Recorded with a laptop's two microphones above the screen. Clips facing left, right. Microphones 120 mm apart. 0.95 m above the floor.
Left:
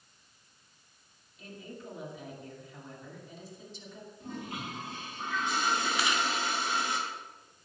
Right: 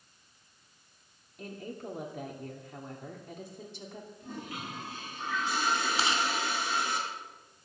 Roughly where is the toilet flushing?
Left.